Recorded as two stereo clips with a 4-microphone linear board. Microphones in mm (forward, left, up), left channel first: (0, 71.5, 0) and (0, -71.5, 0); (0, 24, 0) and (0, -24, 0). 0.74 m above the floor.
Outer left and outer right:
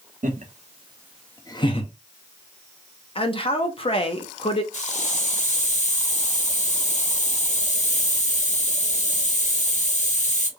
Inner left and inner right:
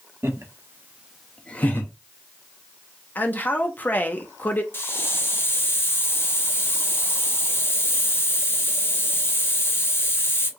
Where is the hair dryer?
No hair dryer in this recording.